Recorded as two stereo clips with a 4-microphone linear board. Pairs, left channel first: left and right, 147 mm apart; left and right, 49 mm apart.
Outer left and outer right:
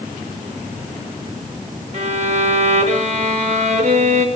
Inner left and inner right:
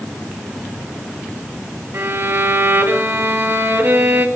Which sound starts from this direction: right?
A violin, at 1.9 s.